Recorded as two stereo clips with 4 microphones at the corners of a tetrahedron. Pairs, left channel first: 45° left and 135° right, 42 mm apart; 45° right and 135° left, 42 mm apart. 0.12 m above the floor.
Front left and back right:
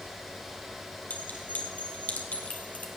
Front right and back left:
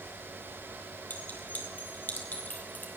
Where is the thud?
I don't hear a thud.